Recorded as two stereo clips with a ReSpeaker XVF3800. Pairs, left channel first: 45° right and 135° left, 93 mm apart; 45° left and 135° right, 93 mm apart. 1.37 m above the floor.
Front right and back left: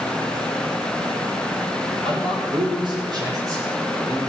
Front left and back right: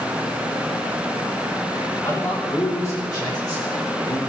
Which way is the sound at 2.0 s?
110° left.